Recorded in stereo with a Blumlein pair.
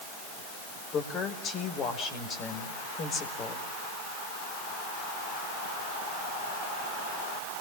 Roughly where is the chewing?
No chewing in this recording.